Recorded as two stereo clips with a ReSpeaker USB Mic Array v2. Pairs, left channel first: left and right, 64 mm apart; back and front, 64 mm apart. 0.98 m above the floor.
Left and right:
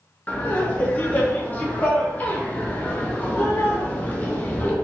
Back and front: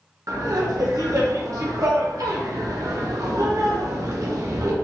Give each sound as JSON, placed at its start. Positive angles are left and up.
{"t": 0.3, "sound": "laughter", "azimuth_deg": 25, "distance_m": 0.6}